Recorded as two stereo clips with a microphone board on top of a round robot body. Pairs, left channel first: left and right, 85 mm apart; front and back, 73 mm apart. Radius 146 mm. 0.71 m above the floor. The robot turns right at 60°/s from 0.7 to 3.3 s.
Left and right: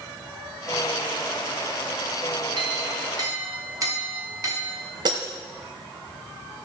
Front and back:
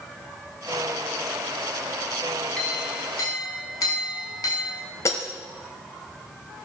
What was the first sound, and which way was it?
A clink, 85° right.